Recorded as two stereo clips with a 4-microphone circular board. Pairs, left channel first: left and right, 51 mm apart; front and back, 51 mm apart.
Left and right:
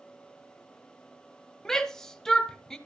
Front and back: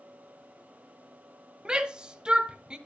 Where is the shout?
145° left, 0.9 m.